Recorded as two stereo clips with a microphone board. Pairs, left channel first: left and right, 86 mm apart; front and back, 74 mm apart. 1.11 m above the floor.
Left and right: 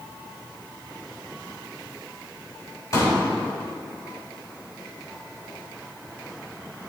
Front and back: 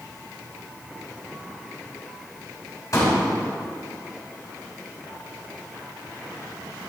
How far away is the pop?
About 3 m.